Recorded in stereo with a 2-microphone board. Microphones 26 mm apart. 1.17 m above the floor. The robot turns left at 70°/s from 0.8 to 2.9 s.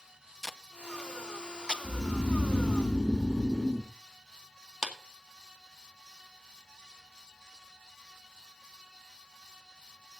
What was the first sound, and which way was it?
Tape being pulled, 15° left (ahead or behind).